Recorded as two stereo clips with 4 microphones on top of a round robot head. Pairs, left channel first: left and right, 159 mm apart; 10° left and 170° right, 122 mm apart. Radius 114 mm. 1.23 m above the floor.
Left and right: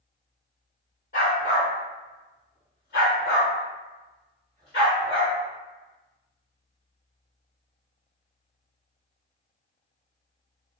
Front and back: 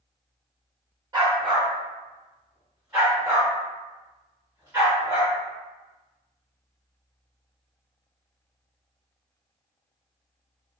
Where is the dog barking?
140° left, 1.4 m.